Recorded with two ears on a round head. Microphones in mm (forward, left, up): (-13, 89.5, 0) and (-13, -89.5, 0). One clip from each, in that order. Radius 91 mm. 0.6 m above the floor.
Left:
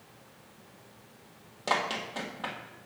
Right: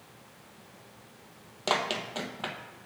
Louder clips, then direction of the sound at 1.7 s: Right 1 dB; 25° right (ahead or behind).